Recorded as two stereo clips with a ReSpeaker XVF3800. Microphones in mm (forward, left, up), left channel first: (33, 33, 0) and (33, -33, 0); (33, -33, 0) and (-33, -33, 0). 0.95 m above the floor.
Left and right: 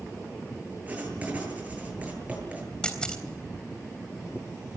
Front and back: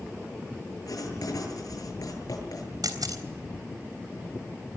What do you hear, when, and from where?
0.9 s writing: 20° right, 8 m
2.8 s a camera shutter: 165° left, 3.5 m